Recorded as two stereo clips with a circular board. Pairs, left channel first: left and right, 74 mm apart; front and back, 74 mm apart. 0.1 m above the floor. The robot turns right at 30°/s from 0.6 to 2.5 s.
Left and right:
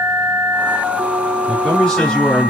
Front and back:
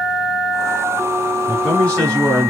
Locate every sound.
1.5 s a man speaking: 10° left, 1.7 m; by 2.5 s 40° left, 1.7 m